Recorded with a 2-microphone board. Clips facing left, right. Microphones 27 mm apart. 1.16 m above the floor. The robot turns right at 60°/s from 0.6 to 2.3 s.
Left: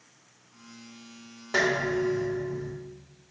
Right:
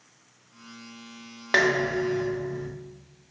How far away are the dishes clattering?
About 0.9 m.